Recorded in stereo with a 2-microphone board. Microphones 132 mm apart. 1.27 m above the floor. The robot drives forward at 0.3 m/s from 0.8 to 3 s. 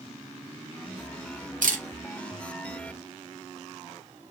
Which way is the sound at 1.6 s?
80° right.